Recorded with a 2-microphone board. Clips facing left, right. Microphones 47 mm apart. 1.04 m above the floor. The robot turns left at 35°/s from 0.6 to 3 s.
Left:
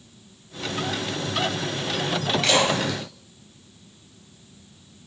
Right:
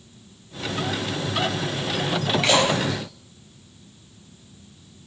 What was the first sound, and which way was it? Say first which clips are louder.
A splash: right 1 dB; 10° right (ahead or behind).